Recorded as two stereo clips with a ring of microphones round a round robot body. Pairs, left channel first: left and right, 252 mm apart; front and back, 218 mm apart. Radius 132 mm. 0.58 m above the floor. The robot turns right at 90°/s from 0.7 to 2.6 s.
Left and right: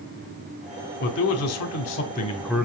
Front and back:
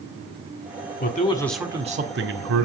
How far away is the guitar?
I don't hear a guitar.